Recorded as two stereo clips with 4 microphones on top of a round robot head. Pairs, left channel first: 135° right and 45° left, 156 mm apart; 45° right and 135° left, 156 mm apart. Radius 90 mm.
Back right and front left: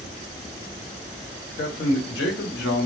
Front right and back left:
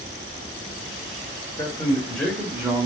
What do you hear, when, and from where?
1.6 s a man speaking: 115° right, 1.0 m; by 2.9 s 150° right, 1.0 m